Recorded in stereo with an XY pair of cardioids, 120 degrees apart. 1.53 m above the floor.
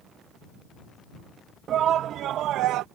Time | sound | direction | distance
1.7 | a shout | 50° right | ?